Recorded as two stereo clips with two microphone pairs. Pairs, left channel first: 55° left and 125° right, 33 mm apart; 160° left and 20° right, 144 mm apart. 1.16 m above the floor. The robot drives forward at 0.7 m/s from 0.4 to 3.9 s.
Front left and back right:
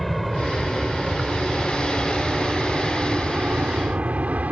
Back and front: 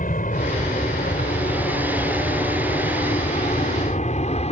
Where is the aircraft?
145° left; by 4.5 s 160° right.